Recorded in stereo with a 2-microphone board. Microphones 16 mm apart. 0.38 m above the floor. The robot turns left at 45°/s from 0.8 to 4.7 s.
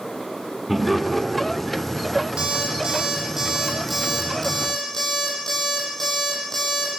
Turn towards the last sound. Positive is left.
turn(degrees=155)